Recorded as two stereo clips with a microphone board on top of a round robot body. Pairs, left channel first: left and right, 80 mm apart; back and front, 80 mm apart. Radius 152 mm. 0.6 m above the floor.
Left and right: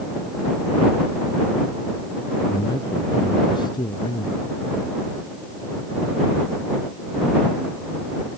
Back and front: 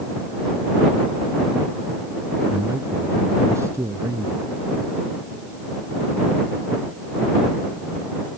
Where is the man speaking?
60° left.